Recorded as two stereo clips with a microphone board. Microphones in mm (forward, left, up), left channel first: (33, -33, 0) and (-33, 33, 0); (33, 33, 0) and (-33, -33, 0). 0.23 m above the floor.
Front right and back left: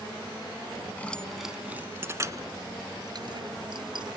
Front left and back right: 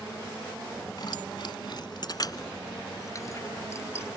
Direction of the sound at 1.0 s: 25° left.